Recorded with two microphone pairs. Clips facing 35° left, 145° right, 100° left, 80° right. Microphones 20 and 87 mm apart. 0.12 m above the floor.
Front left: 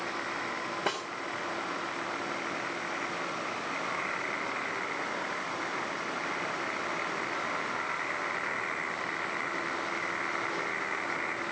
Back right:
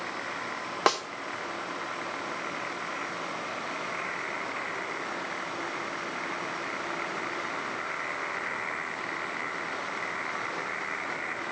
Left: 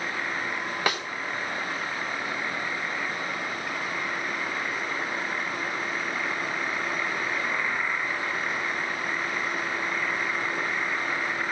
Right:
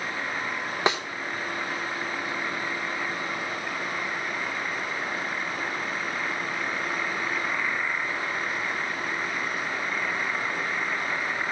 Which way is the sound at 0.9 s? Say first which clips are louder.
Back right 9 dB, right 3 dB; 145° right.